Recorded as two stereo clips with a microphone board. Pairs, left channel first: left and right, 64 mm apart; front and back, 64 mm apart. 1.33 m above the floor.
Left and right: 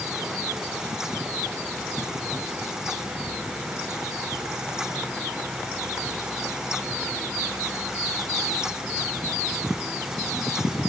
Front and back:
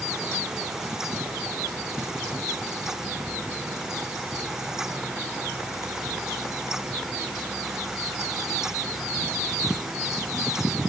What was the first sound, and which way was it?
Only background noise.